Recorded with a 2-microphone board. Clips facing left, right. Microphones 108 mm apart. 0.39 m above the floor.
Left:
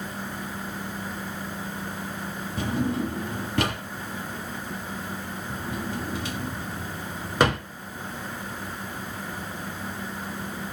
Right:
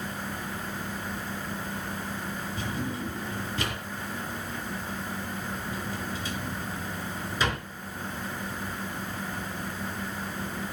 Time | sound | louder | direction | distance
2.6 | a drawer | left 9 dB | 85° left | 1.5 m